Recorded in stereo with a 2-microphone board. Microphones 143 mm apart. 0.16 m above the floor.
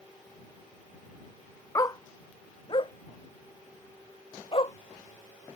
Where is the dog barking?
25° left (ahead or behind); by 4.7 s 40° left (ahead or behind).